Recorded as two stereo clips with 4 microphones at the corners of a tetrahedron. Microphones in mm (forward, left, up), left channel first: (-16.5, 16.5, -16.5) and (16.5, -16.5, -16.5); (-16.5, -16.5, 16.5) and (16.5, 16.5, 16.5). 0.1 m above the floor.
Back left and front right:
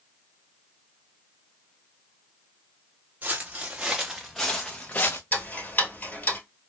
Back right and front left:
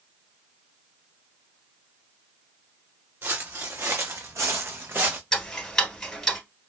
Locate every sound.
3.2 s footsteps: 10° left, 0.9 m; by 5.2 s 95° left, 0.7 m
5.3 s ticking: 150° left, 1.2 m